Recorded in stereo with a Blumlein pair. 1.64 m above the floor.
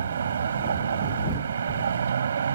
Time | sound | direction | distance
0.0 | a vehicle | 70° right | ?